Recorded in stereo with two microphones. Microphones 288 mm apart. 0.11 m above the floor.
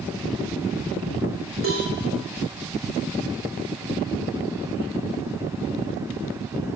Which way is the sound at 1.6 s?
50° right (ahead or behind).